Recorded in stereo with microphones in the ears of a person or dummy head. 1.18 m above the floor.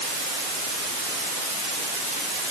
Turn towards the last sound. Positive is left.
No sound to turn to.